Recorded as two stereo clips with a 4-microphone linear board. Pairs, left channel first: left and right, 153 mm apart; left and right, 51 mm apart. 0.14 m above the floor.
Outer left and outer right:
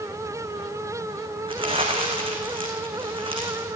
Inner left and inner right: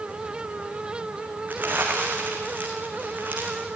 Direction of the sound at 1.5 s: 35° right (ahead or behind).